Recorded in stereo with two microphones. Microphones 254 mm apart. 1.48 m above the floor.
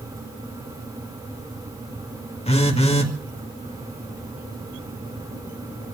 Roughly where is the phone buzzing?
Left.